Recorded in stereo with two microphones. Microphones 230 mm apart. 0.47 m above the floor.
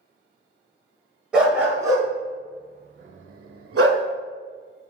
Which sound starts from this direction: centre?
A dog barking, at 1.3 s.